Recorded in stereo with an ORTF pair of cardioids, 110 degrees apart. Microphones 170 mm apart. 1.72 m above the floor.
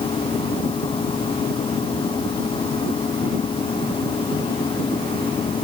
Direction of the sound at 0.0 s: 30° left.